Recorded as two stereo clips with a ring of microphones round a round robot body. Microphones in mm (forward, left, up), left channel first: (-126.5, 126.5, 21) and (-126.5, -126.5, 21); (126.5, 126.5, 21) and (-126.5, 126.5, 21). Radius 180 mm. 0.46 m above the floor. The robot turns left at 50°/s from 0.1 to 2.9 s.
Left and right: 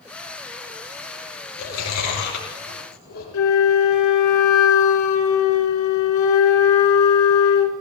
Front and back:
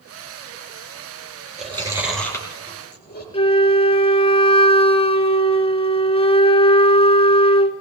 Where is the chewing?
115° left, 5 m; by 3.2 s 50° left, 5 m.